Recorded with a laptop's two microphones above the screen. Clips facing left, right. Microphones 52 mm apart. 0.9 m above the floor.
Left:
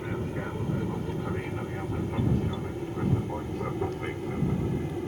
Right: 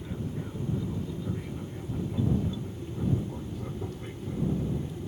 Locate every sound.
0.0 s an aircraft: 65° left (ahead or behind)